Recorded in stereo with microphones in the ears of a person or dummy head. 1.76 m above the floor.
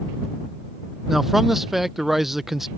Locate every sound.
1.1 s a man speaking: centre (ahead or behind)